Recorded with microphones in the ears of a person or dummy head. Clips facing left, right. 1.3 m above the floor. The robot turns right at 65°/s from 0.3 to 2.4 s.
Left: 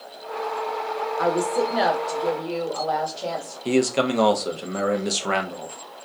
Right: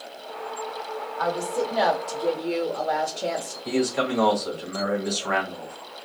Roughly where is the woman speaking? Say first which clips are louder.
Left 4 dB; behind left.